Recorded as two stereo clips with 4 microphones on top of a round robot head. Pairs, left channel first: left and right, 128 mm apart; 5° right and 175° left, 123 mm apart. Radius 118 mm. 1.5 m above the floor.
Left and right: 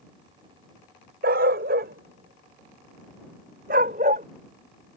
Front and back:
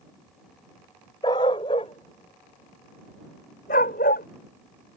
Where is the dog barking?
75° right; by 4.3 s 40° right.